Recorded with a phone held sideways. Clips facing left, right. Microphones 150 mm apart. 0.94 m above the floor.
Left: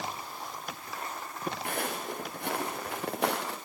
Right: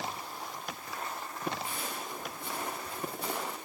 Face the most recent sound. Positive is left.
turn(degrees=75)  # may be behind; listen again after turning